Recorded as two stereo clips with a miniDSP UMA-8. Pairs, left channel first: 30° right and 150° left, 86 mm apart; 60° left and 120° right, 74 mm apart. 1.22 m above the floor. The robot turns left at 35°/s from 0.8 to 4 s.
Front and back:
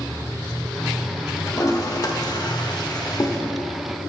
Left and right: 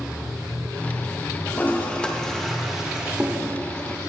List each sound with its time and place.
1.5 s a toilet flushing: 10° left, 0.9 m; by 3.4 s 55° right, 0.9 m